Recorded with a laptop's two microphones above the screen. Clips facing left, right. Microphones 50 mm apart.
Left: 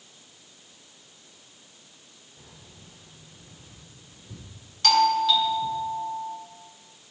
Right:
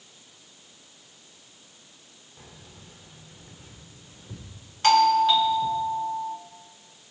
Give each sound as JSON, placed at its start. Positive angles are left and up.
{"t": 2.4, "sound": "keys jangling", "side_deg": -75, "distance_m": 2.0}
{"t": 4.8, "sound": "a doorbell", "side_deg": -25, "distance_m": 1.5}